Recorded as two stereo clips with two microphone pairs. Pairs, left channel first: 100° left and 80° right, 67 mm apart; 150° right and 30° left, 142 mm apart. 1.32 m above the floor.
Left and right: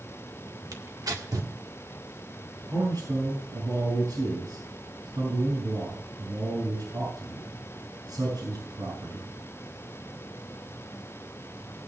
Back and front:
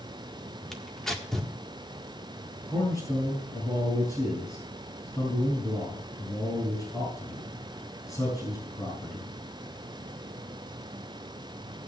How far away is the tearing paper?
About 1.7 m.